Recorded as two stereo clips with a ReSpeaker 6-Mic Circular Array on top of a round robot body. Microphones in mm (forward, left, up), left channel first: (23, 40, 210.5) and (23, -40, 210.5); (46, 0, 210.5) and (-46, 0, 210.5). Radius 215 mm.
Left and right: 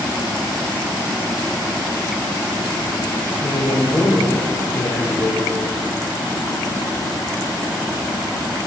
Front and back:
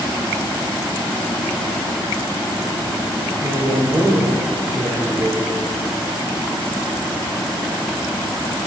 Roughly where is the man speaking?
Behind left.